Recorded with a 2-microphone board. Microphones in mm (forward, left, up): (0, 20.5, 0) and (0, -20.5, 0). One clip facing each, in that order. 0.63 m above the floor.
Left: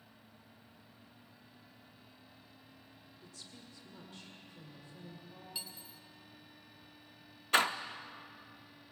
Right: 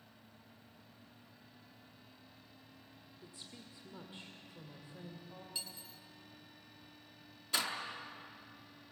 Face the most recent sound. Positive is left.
turn(degrees=50)  # may be behind; listen again after turning